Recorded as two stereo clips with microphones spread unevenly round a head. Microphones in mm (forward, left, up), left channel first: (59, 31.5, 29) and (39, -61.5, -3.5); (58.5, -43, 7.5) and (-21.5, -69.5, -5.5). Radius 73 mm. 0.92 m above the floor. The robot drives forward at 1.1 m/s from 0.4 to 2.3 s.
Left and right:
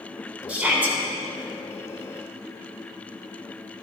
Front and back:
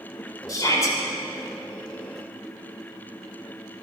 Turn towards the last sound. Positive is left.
turn(degrees=-45)